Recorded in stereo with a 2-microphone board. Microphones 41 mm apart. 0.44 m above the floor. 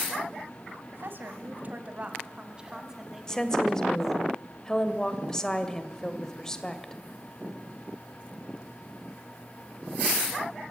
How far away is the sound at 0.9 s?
About 2.5 m.